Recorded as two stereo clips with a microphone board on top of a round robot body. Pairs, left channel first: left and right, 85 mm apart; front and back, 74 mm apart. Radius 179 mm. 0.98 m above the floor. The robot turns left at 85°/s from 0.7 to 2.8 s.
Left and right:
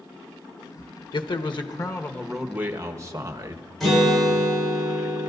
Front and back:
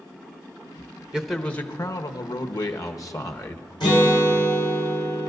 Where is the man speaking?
105° left, 1.2 m; by 3.6 s 40° right, 1.2 m.